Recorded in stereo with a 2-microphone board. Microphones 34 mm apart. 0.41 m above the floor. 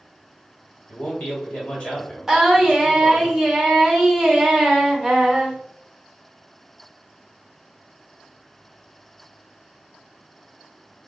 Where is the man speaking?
35° left (ahead or behind), 1.8 m.